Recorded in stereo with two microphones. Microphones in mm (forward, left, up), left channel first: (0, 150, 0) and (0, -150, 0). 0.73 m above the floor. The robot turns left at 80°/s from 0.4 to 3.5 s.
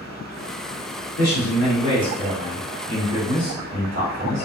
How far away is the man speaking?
About 1.9 m.